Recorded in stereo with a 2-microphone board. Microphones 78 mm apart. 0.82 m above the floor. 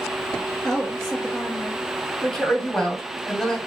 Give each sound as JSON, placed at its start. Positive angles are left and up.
{"t": 0.6, "sound": "a woman speaking", "side_deg": 10, "distance_m": 0.7}
{"t": 2.2, "sound": "a woman speaking", "side_deg": 5, "distance_m": 1.8}